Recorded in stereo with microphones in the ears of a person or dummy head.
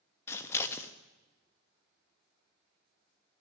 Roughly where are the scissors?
Centre.